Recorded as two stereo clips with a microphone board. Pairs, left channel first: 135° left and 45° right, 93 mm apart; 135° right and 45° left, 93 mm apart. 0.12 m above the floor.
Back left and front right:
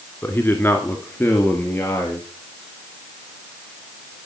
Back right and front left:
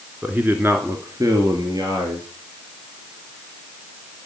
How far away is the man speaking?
About 1.6 m.